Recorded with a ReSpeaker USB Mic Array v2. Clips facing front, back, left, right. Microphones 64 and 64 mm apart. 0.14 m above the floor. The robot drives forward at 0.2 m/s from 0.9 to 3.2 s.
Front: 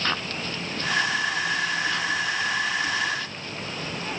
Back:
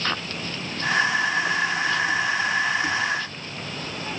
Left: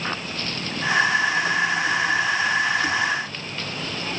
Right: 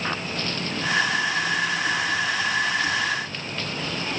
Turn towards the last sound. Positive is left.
No sound to turn to.